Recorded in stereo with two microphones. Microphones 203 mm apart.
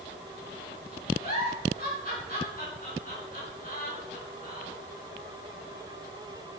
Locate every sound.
1.2 s a giggle: 45° left (ahead or behind), 4 m